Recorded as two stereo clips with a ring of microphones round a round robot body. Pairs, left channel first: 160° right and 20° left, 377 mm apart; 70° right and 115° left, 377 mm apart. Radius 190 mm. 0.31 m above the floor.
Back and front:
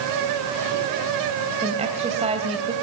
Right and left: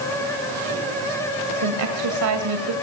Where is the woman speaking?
90° left, 2 m.